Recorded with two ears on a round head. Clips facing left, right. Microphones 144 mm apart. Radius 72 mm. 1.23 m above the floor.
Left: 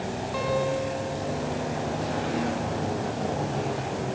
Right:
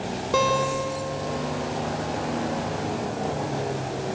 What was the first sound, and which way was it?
A guitar, 80° right.